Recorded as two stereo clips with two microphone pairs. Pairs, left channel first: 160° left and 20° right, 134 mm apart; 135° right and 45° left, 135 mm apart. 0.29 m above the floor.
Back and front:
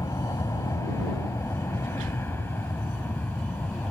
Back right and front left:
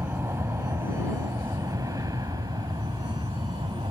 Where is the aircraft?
110° left; by 3.9 s 85° left.